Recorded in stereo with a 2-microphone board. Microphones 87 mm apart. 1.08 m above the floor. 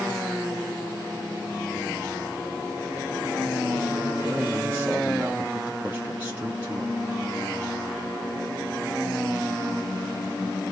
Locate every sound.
4.2 s a man speaking: 20° right (ahead or behind), 0.9 m